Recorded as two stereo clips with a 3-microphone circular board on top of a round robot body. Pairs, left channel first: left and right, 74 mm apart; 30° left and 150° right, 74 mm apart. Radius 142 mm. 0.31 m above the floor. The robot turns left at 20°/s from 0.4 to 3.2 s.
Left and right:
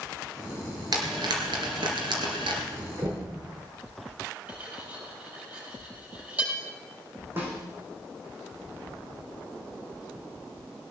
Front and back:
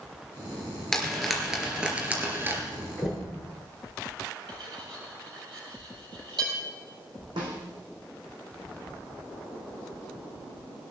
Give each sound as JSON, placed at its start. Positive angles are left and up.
{"t": 0.9, "sound": "frying", "azimuth_deg": -55, "distance_m": 2.5}
{"t": 3.0, "sound": "knocking", "azimuth_deg": -65, "distance_m": 7.0}
{"t": 4.5, "sound": "cutlery clinking", "azimuth_deg": -160, "distance_m": 7.5}
{"t": 7.4, "sound": "a snare drum", "azimuth_deg": -150, "distance_m": 4.5}